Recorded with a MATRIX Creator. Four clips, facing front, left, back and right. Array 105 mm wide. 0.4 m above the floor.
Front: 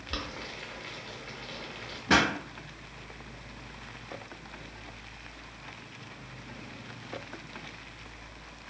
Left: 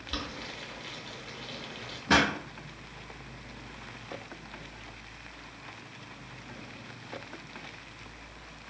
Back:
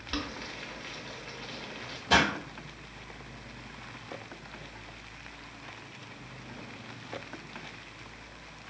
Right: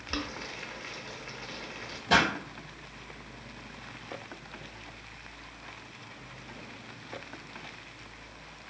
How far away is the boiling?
About 0.7 m.